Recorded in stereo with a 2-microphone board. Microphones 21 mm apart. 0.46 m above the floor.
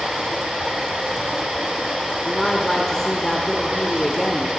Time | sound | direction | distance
0.0 | running water | 80° right | 4 m
2.2 | a woman speaking | 25° left (ahead or behind) | 1.3 m